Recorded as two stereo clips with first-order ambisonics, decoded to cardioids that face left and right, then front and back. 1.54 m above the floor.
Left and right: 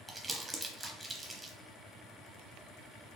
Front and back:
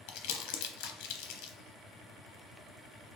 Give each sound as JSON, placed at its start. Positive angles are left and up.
{"t": 0.1, "sound": "crumpling", "azimuth_deg": -10, "distance_m": 0.6}